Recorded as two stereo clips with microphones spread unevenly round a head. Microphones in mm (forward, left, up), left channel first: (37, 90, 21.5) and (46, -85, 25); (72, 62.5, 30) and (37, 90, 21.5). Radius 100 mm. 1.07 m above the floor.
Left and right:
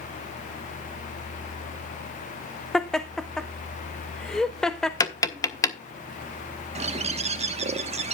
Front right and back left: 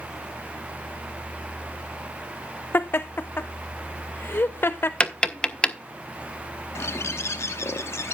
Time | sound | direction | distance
2.7 | laughter | 5° left | 0.6 m
5.0 | tapping | 20° left | 1.1 m
6.8 | a bird | 35° right | 1.2 m